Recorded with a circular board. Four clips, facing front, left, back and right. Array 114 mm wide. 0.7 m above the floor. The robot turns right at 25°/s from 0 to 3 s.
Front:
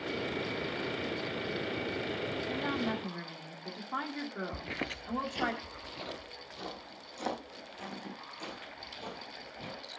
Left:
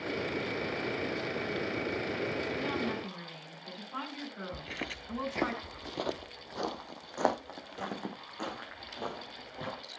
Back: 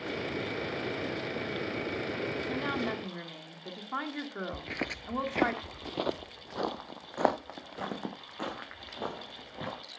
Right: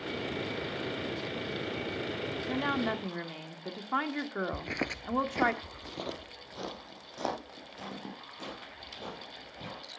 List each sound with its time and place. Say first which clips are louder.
2.5 s a woman speaking: right 3 dB, front 1 dB; 115° right, 1.9 m; by 5.5 s 100° right, 1.9 m
4.5 s footsteps: right 5 dB, back 2 dB; 75° right, 0.7 m; by 9.8 s 155° left, 4 m